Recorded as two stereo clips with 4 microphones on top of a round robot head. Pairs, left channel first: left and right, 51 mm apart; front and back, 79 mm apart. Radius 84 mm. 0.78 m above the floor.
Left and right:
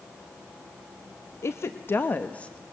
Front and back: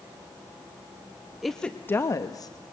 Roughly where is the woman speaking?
Left.